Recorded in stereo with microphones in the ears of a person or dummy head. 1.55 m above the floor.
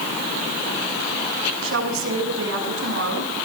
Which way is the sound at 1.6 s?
65° right (ahead or behind).